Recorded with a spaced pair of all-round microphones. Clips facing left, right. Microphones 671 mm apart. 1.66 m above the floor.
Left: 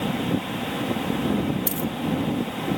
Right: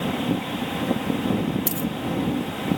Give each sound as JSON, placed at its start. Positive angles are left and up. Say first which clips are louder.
{"t": 1.7, "sound": "a dropped coin", "louder": "right 1 dB", "side_deg": -55}